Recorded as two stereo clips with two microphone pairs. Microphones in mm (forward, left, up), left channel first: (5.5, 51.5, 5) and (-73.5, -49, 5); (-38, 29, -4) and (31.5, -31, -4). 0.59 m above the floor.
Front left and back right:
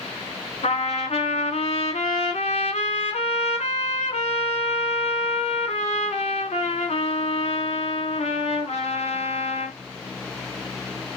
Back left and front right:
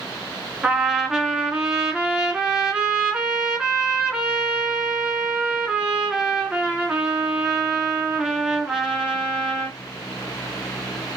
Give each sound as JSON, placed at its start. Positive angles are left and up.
{"t": 0.6, "sound": "a trumpet", "azimuth_deg": 40, "distance_m": 1.0}